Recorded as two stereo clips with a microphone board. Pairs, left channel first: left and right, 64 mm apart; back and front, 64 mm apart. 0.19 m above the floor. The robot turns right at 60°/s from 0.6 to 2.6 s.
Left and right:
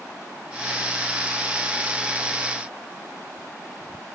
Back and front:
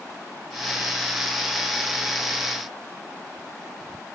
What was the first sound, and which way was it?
Only background noise.